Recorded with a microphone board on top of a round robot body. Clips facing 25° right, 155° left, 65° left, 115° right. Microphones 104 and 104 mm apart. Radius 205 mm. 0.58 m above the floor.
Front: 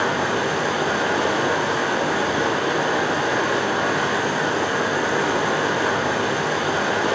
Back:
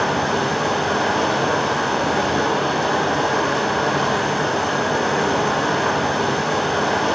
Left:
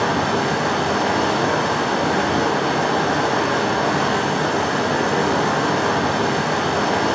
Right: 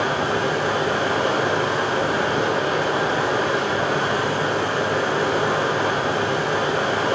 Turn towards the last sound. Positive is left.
turn(degrees=90)